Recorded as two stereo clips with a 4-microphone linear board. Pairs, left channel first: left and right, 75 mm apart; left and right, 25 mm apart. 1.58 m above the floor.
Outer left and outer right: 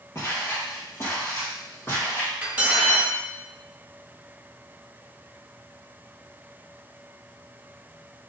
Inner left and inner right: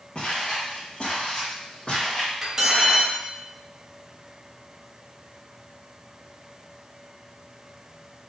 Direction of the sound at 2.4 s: 20° right (ahead or behind).